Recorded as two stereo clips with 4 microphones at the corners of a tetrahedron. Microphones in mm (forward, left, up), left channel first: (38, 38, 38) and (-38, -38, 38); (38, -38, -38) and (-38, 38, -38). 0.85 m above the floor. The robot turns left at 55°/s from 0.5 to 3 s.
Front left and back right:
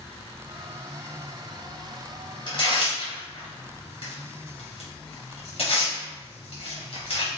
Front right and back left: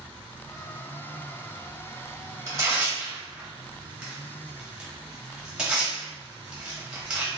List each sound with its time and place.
2.5 s tearing paper: 85° left, 1.0 m; by 7.3 s 55° left, 1.0 m